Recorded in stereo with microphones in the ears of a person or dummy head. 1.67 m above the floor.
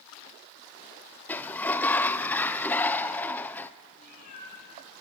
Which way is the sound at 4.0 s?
50° left (ahead or behind).